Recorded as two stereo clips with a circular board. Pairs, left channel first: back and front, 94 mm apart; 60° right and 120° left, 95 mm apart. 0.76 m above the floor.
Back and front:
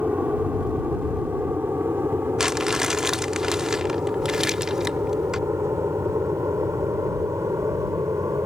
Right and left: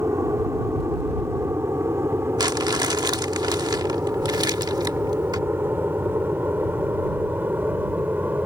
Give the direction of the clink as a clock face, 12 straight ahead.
No clink in this recording.